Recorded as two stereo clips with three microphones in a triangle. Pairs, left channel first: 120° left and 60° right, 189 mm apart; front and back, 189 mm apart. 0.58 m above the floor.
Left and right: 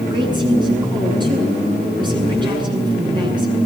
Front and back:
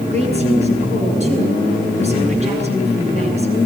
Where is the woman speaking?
125° right, 8.5 m.